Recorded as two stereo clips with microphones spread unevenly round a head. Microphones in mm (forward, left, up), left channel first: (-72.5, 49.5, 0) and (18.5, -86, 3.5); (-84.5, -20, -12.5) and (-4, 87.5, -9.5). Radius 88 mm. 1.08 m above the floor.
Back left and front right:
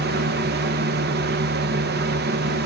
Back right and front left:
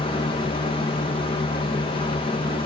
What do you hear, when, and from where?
0.0 s a fan: 65° right, 0.9 m